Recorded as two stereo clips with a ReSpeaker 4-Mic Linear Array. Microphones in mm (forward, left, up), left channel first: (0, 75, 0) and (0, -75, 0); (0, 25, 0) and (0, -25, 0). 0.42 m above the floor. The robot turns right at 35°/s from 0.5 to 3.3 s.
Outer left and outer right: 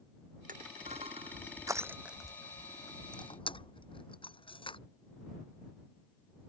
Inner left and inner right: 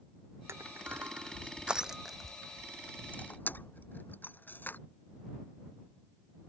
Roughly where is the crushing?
Right.